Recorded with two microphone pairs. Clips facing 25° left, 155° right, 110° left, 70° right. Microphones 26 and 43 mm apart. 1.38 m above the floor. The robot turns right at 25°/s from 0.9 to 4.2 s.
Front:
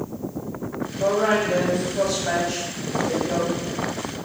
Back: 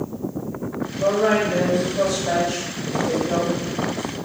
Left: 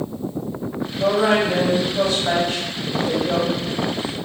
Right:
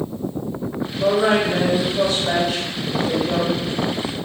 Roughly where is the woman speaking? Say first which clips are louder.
Back 2 dB, even; ahead left.